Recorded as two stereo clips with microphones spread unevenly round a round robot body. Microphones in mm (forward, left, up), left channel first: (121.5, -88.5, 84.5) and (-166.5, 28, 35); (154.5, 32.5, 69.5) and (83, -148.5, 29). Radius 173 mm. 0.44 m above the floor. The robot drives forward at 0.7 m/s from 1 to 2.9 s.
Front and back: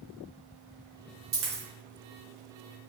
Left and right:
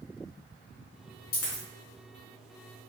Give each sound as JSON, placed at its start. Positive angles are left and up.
{"t": 1.3, "sound": "a dropped coin", "azimuth_deg": 80, "distance_m": 1.2}